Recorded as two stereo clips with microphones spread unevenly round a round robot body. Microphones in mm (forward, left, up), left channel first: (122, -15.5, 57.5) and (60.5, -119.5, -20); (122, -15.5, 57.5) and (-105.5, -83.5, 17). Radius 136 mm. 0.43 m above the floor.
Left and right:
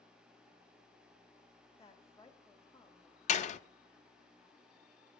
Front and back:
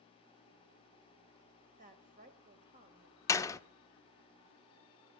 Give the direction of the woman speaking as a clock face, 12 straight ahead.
7 o'clock.